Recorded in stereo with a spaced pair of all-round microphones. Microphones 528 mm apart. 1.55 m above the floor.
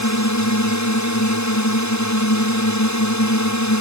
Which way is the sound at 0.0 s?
30° left (ahead or behind).